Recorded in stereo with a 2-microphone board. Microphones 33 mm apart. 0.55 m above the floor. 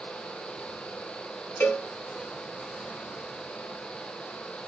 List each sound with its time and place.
1.6 s a cowbell: 75° left (ahead or behind), 1.1 m